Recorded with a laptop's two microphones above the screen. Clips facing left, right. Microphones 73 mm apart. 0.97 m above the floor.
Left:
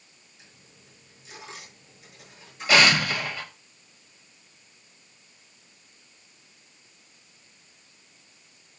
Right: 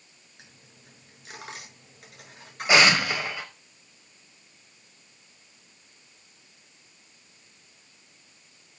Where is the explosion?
20° right (ahead or behind), 4 m.